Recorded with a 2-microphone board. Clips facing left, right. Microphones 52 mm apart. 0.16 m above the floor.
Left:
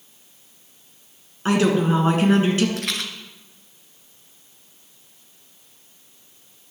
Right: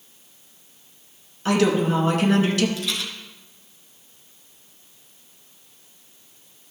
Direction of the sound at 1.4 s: 25° left (ahead or behind).